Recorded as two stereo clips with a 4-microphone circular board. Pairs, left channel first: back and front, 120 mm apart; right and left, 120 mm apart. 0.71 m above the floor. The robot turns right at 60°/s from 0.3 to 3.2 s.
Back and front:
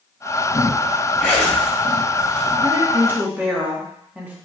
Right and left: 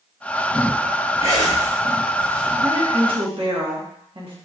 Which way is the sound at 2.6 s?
35° left.